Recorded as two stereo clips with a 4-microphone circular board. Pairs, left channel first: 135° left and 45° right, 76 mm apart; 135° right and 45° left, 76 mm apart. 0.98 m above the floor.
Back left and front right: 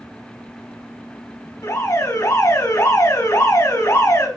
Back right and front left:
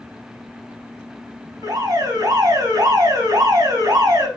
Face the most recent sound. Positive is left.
turn(degrees=85)